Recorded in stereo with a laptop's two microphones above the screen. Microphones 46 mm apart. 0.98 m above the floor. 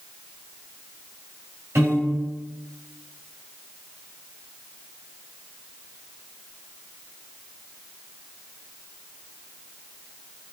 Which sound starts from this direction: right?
A piano, at 1.8 s.